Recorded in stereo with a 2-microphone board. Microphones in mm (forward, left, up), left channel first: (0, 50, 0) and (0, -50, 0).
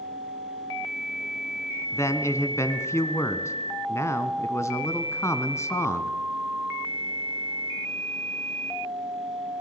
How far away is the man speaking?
About 1.6 m.